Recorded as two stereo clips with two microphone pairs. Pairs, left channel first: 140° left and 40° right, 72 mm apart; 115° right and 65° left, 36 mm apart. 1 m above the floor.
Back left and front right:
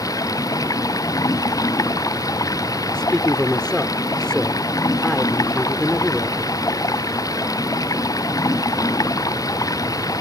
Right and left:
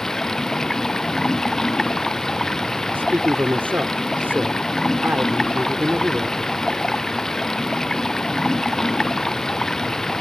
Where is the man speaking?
60° left.